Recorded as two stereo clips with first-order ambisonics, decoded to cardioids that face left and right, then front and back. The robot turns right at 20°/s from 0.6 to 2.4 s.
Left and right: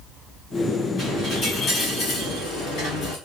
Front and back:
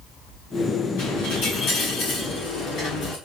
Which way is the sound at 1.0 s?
20° left.